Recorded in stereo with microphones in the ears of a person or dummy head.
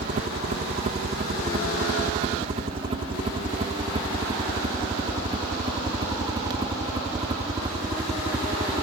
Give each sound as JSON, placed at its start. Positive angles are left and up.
{"t": 0.0, "sound": "a helicopter", "side_deg": -35}